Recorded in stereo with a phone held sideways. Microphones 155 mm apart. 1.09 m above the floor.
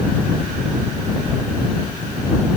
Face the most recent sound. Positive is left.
No sound to turn to.